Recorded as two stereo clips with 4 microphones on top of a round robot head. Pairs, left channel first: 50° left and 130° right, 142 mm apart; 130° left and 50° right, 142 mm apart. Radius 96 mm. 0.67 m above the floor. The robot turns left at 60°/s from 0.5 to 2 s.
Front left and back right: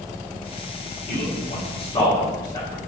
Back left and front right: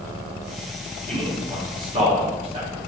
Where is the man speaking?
45° left, 1.6 m; by 2.8 s 10° right, 1.6 m.